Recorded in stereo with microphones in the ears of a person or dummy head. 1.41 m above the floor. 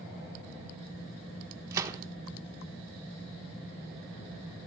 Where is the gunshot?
15° right (ahead or behind), 1.1 m.